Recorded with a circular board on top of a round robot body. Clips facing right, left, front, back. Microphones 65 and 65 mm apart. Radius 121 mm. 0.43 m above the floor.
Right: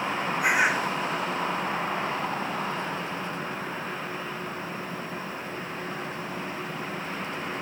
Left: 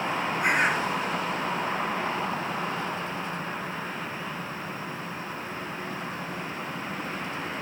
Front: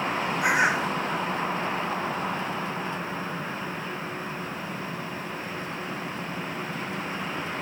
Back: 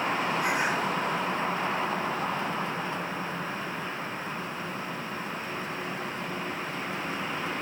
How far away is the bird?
About 0.8 m.